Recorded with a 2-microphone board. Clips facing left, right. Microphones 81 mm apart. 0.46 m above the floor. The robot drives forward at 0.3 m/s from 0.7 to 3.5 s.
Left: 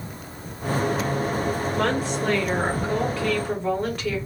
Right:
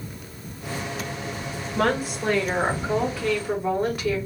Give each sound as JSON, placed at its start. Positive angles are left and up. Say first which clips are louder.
{"t": 1.8, "sound": "a woman speaking", "louder": "right 4 dB", "side_deg": -5, "distance_m": 1.3}